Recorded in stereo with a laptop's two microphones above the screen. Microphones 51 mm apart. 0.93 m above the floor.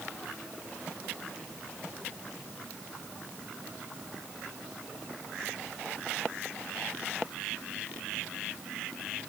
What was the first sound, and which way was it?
Only background noise.